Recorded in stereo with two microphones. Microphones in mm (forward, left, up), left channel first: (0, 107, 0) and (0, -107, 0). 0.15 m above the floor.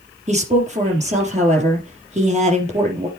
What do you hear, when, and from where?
0.3 s a woman speaking: 30° right (ahead or behind), 4 m